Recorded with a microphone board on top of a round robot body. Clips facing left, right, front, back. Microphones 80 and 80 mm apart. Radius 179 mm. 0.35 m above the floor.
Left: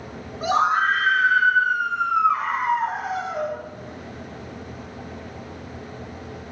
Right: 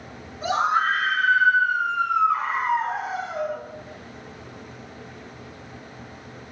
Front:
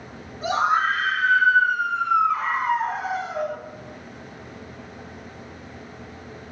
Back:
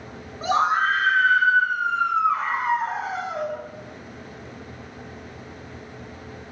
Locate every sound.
0.4 s a scream: 125° left, 7.5 m; by 3.6 s 110° left, 8 m